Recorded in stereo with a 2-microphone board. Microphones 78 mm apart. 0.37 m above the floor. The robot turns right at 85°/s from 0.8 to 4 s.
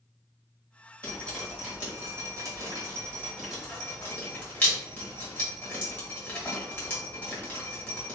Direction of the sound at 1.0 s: 30° left (ahead or behind).